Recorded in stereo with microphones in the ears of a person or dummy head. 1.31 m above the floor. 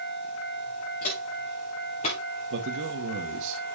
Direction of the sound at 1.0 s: 45° left (ahead or behind).